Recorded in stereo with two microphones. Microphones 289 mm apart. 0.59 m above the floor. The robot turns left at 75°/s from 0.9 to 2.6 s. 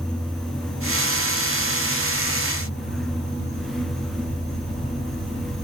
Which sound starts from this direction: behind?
An insect, at 0.0 s.